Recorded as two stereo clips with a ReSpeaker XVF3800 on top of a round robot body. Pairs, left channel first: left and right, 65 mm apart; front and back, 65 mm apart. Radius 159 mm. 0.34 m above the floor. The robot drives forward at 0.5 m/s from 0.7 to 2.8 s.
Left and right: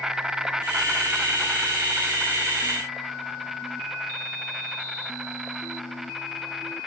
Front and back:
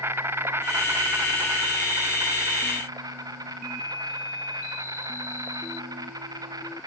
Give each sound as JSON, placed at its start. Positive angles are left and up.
{"t": 0.0, "sound": "an insect", "azimuth_deg": -165, "distance_m": 0.7}